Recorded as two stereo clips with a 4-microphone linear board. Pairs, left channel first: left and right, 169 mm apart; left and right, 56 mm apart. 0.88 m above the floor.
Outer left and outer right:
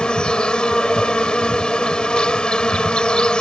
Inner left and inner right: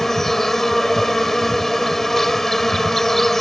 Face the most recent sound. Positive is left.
turn(degrees=5)  # may be behind; listen again after turning